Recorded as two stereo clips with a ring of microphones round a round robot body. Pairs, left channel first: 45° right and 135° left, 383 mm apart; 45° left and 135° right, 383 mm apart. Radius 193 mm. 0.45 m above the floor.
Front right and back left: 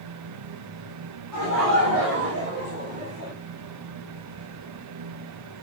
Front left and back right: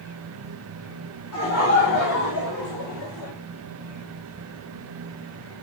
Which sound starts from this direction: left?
Laughter, at 1.3 s.